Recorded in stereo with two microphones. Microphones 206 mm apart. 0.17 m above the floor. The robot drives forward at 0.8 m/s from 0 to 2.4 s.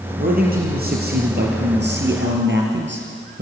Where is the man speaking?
40° right (ahead or behind), 4.5 m; by 3.4 s 55° right (ahead or behind), 3.5 m.